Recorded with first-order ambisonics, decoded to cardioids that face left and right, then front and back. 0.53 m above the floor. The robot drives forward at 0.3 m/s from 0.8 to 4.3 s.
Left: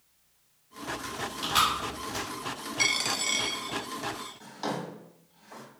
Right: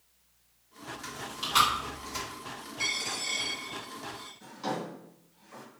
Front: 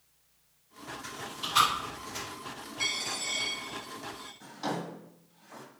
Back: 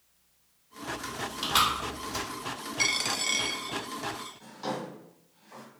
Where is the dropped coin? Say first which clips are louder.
Left 5 dB, back 4 dB; 130° left, 0.5 m; by 4.3 s 155° left, 0.9 m.